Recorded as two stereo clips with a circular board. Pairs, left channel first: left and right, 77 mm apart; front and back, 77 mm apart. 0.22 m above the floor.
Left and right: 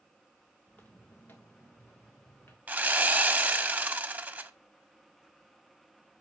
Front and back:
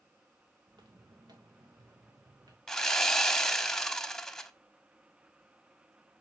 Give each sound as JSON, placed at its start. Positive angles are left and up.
{"t": 0.7, "sound": "footsteps", "azimuth_deg": 160, "distance_m": 1.5}
{"t": 2.7, "sound": "sawing", "azimuth_deg": -70, "distance_m": 0.6}